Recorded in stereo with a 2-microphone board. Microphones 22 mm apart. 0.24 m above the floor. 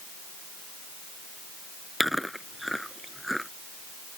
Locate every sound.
2.0 s chewing: centre (ahead or behind)